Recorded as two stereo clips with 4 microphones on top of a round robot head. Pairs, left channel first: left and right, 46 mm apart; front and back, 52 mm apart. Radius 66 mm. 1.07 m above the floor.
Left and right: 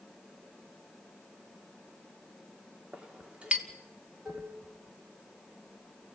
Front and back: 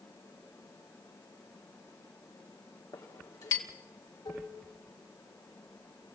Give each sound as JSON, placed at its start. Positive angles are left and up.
{"t": 2.9, "sound": "a clink", "azimuth_deg": -25, "distance_m": 2.5}
{"t": 4.2, "sound": "dishes clattering", "azimuth_deg": -20, "distance_m": 4.5}